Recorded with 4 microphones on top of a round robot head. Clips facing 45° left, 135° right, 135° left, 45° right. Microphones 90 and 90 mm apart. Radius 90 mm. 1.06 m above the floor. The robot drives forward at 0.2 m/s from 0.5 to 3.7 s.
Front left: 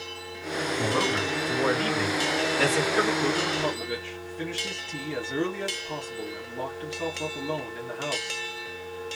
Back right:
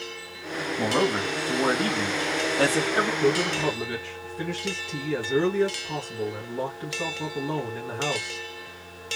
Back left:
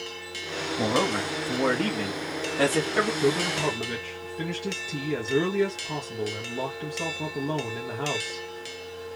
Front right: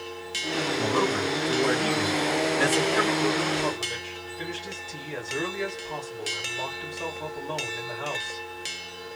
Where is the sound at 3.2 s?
150° left, 1.9 m.